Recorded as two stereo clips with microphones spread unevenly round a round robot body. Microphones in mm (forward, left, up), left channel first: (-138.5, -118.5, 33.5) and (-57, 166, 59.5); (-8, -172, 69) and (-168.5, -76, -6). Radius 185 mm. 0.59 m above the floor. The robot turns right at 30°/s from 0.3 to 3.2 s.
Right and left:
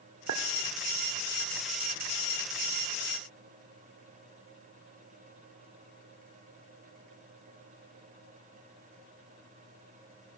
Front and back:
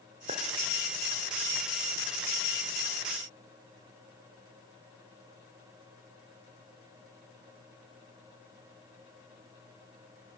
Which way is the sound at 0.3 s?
100° left.